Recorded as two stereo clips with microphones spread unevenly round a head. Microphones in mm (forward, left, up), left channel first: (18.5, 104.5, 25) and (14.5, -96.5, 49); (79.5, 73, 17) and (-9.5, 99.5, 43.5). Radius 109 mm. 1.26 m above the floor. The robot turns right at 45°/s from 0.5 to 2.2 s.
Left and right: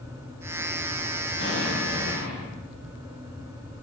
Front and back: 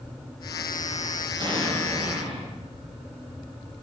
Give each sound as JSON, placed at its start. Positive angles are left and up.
{"t": 1.4, "sound": "an explosion", "azimuth_deg": 130, "distance_m": 4.5}